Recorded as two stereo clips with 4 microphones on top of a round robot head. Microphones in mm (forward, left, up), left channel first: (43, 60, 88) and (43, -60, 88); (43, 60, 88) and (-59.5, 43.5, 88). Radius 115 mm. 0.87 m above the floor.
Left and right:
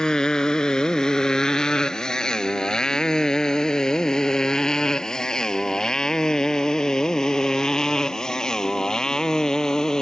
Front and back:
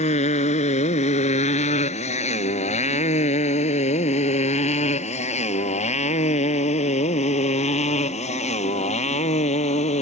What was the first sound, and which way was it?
A motorcycle, 5° left.